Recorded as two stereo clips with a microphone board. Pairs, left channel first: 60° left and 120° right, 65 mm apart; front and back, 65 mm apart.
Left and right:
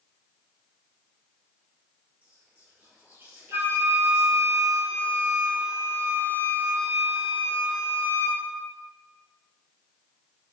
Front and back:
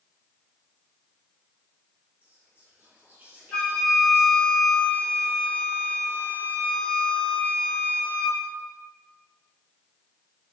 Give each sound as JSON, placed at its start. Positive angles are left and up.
{"t": 2.2, "sound": "whispering", "azimuth_deg": -140, "distance_m": 1.7}
{"t": 3.5, "sound": "a flute", "azimuth_deg": -75, "distance_m": 0.9}